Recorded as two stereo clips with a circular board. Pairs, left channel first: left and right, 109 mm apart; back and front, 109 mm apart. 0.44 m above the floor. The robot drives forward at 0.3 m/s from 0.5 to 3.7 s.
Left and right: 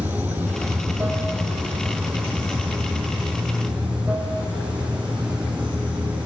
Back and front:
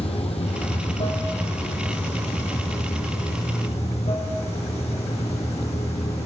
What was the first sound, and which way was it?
Running water, 165° right.